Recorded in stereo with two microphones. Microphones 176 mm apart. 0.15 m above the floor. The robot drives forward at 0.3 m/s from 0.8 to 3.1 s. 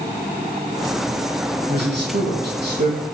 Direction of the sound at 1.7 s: 70° right (ahead or behind).